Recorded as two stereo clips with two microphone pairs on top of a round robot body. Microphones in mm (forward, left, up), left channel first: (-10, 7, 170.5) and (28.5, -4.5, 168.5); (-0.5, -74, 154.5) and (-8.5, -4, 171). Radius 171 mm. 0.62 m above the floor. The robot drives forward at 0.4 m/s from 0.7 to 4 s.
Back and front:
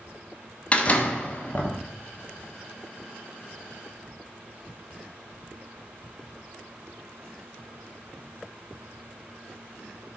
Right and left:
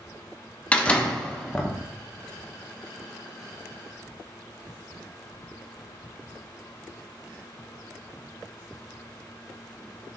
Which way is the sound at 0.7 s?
140° right.